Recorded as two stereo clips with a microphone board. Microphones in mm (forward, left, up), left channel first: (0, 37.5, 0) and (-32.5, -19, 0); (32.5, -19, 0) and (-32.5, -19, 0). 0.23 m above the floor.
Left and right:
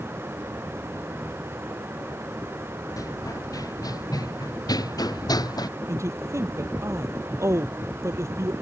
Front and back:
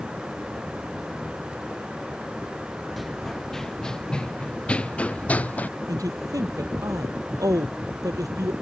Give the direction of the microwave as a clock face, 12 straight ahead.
I don't hear a microwave.